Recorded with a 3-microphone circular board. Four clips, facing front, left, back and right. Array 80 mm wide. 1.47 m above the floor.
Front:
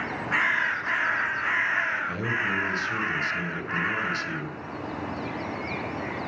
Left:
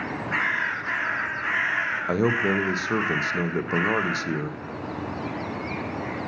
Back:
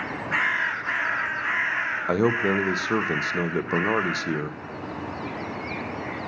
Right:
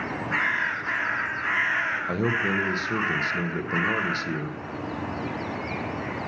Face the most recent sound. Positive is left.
turn(degrees=160)